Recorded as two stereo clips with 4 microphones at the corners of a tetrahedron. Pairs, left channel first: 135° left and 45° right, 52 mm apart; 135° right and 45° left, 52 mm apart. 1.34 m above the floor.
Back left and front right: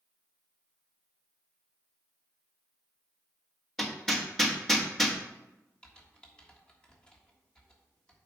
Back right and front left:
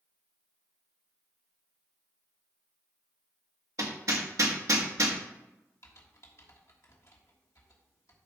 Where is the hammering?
45° left, 1.2 m.